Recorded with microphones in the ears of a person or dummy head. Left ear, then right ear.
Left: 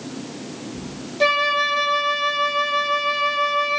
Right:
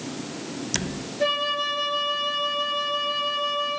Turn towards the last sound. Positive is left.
turn(degrees=35)  # may be behind; listen again after turning